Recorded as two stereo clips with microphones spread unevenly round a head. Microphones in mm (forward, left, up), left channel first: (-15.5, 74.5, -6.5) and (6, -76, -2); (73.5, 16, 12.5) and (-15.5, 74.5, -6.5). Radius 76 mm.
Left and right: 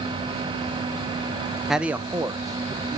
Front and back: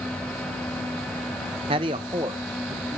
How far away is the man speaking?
About 0.8 m.